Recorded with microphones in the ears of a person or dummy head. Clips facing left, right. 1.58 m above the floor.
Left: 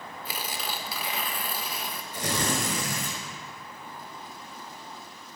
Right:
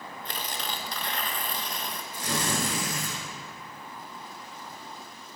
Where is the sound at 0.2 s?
5° left (ahead or behind), 1.1 m.